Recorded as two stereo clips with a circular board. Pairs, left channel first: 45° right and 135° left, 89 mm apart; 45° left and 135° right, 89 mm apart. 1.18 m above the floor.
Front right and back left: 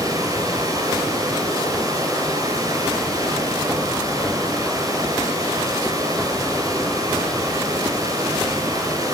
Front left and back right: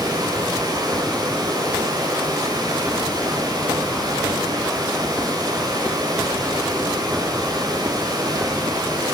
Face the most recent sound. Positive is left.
turn(degrees=-175)